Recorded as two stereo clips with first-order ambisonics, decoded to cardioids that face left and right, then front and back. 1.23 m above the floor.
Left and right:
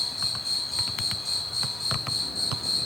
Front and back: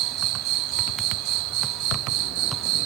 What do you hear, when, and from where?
0.0 s an insect: 175° left